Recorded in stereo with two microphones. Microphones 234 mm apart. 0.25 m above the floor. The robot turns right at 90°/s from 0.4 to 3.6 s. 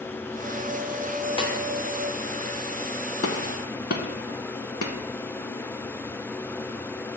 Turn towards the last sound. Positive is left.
turn(degrees=65)  # may be behind; listen again after turning